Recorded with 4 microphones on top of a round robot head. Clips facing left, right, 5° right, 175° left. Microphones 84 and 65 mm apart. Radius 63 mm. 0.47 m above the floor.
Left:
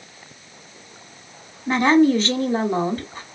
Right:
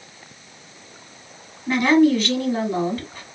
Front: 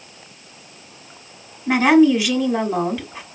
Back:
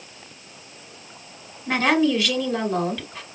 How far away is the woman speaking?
About 1.4 m.